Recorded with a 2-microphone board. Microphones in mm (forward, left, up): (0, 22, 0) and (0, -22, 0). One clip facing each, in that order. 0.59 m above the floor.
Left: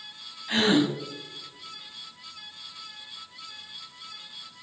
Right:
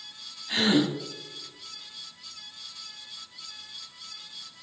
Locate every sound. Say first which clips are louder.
0.5 s a gasp: left 1 dB; 40° left (ahead or behind), 5.5 m